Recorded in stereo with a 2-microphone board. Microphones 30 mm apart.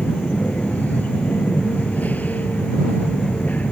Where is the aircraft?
65° left (ahead or behind).